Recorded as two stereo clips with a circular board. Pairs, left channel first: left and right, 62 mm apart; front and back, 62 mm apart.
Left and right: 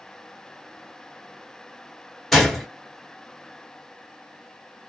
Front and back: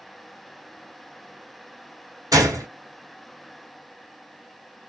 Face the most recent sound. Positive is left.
turn(degrees=180)